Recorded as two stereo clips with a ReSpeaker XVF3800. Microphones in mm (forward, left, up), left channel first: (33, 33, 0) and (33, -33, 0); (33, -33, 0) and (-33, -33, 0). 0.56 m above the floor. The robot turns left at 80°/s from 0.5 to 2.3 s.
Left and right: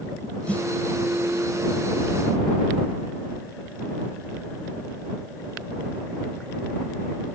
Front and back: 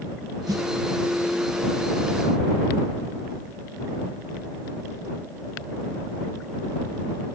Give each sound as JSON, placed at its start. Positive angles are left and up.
{"t": 0.5, "sound": "a snare drum", "azimuth_deg": 160}